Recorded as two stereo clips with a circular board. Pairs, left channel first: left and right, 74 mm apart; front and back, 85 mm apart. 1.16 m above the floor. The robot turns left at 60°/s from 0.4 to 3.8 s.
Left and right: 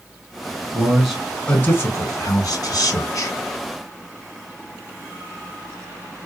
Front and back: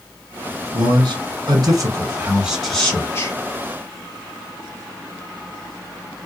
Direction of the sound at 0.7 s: 160° right.